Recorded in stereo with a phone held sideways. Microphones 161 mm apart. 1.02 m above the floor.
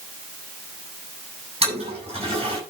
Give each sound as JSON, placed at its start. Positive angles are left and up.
{"t": 1.6, "sound": "a toilet flushing", "side_deg": -35, "distance_m": 7.0}